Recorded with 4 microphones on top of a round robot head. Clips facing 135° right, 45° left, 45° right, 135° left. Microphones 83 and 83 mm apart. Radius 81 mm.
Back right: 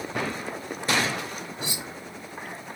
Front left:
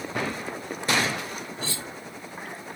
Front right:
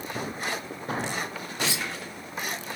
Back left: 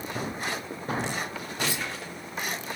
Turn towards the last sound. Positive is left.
turn(degrees=-60)